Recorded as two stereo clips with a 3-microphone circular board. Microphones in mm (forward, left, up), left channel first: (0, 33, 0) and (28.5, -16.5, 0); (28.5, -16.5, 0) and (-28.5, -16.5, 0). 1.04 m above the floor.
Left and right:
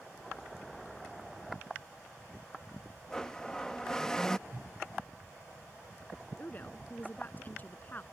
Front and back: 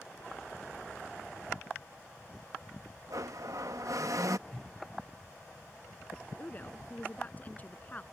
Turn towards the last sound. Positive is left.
turn(degrees=60)